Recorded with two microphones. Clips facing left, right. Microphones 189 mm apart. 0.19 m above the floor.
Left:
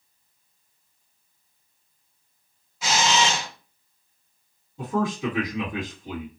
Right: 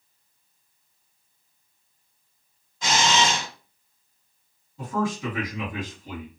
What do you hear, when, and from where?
2.8 s a camera shutter: 5° left (ahead or behind), 1.8 m
4.8 s a man speaking: 15° left (ahead or behind), 1.6 m